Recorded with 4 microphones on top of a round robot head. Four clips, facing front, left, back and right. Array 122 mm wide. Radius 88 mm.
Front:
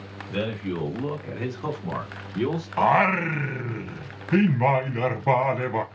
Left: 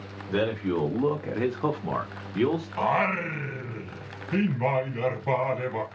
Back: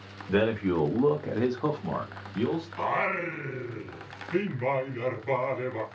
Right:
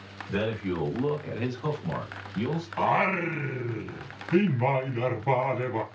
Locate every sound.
0.3 s a man speaking: 160° left, 2 m; by 2.7 s 70° left, 1.7 m
2.8 s singing: straight ahead, 1.1 m